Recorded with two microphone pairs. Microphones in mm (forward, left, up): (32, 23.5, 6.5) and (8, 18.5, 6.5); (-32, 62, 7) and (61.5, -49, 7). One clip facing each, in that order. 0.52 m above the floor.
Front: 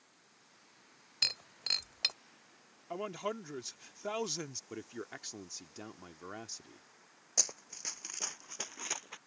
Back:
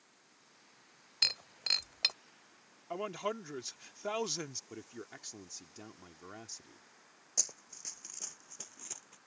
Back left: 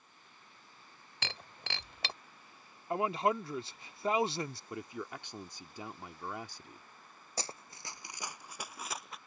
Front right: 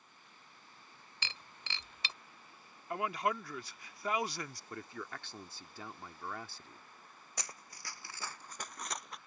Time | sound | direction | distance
1.2 | breaking glass | 110° left | ?
2.9 | a man speaking | 120° left | ?
4.7 | a man speaking | 70° left | ?
7.4 | running footsteps | 75° left | ?